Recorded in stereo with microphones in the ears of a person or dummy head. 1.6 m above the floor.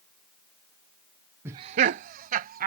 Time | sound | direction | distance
1.4 | laughter | 15° right (ahead or behind) | ?